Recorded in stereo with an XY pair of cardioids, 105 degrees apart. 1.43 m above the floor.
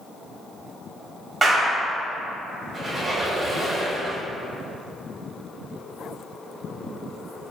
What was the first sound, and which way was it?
A clap, 35° right.